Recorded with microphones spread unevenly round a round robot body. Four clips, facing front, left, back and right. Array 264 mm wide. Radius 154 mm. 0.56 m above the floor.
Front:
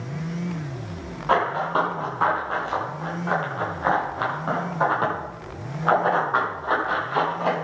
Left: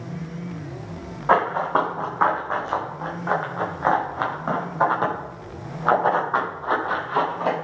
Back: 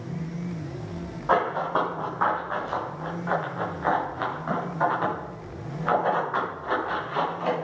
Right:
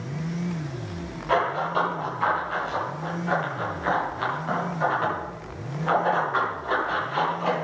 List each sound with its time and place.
1.3 s running footsteps: 65° left, 6.5 m; by 7.5 s 45° left, 11.5 m